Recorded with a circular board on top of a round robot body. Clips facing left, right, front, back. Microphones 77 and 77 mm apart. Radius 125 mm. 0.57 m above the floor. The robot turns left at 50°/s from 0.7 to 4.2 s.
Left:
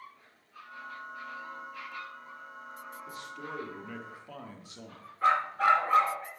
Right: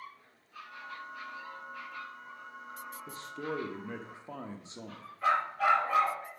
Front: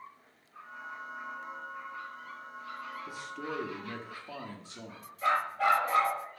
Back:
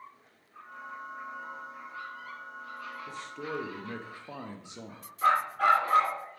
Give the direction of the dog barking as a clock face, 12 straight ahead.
7 o'clock.